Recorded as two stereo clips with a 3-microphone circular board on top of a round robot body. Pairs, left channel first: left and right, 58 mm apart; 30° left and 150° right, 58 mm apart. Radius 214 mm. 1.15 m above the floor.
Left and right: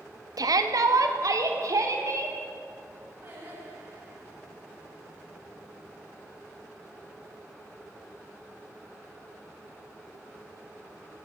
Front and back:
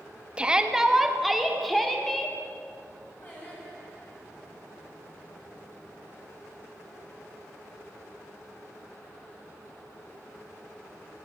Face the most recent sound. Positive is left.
turn(degrees=-25)